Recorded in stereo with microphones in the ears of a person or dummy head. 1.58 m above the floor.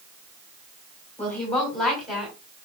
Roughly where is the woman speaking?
Centre.